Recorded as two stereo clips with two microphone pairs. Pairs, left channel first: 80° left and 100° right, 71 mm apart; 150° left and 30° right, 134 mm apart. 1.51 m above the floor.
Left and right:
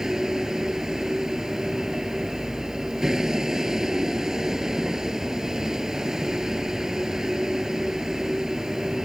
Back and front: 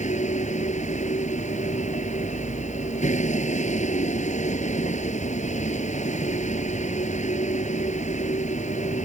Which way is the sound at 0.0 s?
175° left.